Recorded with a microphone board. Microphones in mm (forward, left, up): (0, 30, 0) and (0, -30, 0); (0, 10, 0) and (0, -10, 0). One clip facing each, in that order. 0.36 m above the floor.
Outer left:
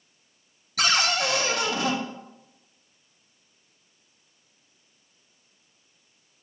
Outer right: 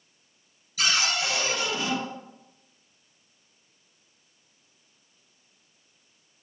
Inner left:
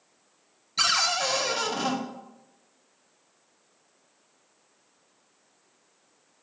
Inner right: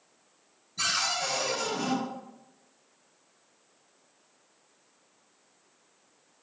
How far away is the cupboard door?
About 0.8 m.